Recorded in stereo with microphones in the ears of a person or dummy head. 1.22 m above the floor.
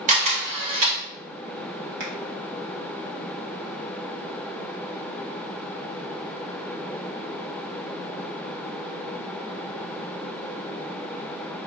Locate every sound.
0.1 s a camera shutter: 35° right (ahead or behind), 0.8 m
2.0 s a finger snap: 45° right (ahead or behind), 1.2 m